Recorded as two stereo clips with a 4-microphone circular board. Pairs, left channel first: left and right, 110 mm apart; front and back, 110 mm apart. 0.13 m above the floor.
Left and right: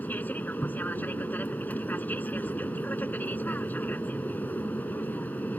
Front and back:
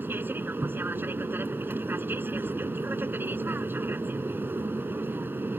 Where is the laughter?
I don't hear laughter.